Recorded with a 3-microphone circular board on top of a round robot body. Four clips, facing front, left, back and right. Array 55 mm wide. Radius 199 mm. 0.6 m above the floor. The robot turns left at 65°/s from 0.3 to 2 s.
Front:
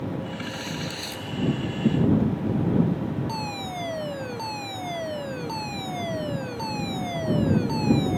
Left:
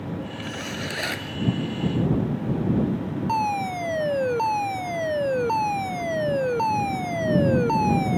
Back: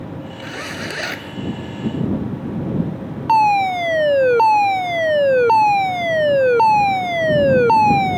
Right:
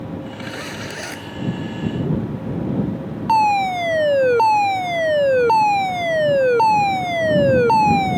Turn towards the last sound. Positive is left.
turn(degrees=-155)